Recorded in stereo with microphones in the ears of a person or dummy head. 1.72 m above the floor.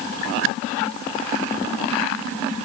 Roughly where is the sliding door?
I don't hear a sliding door.